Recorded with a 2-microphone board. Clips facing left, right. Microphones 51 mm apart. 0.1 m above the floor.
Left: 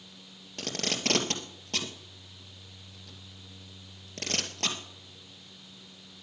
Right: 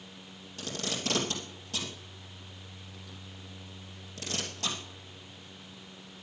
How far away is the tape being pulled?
About 2.5 m.